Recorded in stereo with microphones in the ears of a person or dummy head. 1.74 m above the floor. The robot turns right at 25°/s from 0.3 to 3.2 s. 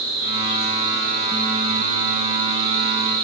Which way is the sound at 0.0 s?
120° right.